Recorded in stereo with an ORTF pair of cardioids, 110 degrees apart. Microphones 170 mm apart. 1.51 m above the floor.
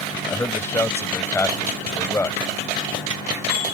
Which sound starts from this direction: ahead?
A man speaking, at 0.3 s.